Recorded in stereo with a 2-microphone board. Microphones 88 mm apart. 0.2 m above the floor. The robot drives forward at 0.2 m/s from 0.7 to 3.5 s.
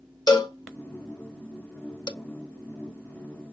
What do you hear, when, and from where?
0.3 s a cowbell: 50° left (ahead or behind), 0.5 m; by 2.1 s 60° left (ahead or behind), 0.5 m